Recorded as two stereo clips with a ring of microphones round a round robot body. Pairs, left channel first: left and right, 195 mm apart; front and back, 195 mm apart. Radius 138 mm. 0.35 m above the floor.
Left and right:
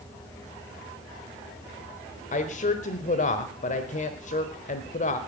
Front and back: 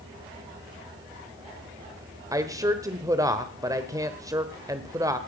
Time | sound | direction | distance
2.3 | a woman speaking | 115° left | 1.2 m